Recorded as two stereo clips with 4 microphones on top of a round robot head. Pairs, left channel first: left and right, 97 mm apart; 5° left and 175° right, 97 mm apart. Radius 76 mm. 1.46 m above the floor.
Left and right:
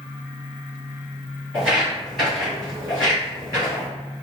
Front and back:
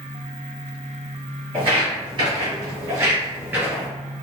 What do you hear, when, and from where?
1.5 s footsteps: 165° right, 1.9 m; by 3.9 s 105° left, 1.6 m